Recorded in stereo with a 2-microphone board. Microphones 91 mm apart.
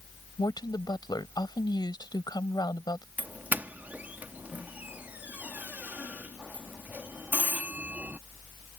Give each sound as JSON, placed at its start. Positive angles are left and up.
{"t": 0.4, "sound": "a woman speaking", "side_deg": 50}
{"t": 3.2, "sound": "a doorbell", "side_deg": -20}